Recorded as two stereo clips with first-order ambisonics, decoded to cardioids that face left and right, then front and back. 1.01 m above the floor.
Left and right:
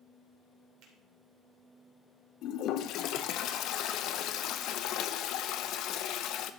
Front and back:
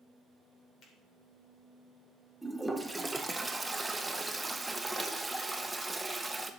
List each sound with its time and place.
0.8 s a finger snap: 60° right, 2.5 m
2.4 s a toilet flushing: 100° left, 0.6 m